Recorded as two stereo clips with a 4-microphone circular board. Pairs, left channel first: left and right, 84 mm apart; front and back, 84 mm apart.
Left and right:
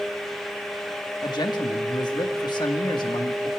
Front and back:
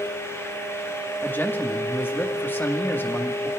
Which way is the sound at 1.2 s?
65° left.